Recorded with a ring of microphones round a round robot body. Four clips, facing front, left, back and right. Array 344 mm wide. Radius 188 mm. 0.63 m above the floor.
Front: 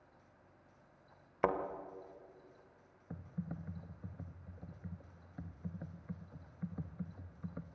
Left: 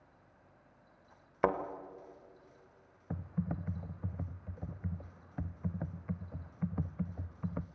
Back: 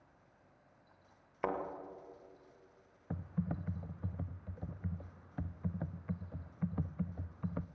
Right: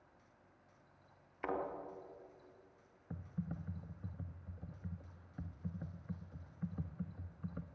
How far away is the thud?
About 1.3 m.